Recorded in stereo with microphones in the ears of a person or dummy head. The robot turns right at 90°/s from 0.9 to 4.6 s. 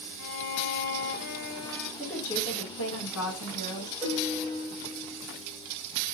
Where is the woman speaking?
10° right, 1.4 m; by 3.9 s 165° left, 1.4 m.